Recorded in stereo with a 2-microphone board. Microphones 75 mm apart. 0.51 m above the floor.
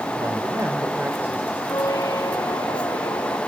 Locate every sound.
0.1 s a man speaking: 50° right (ahead or behind), 2.5 m; by 1.6 s 20° right (ahead or behind), 2.5 m
1.7 s a squeak: 60° left (ahead or behind), 1.4 m